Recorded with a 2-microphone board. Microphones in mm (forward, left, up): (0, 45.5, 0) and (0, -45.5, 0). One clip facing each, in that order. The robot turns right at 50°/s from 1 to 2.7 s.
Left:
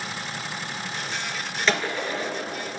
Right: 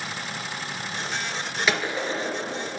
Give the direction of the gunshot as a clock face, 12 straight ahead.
6 o'clock.